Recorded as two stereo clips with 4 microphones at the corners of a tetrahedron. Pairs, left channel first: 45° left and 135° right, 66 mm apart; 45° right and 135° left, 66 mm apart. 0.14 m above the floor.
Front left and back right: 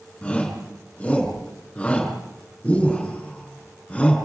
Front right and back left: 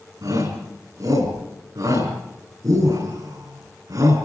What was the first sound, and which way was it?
A shout, 115° left.